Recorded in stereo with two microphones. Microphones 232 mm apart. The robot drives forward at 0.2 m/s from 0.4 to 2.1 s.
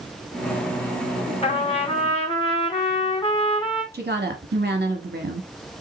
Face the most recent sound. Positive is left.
turn(degrees=-45)  # may be behind; listen again after turning